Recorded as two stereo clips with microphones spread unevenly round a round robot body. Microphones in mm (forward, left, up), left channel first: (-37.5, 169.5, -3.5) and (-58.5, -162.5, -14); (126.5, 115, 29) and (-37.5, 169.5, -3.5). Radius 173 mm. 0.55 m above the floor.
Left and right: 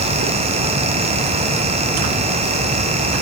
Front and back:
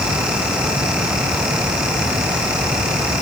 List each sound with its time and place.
Only background noise.